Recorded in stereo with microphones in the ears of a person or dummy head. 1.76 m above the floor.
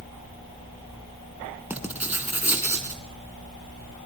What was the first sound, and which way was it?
Writing, 5° right (ahead or behind).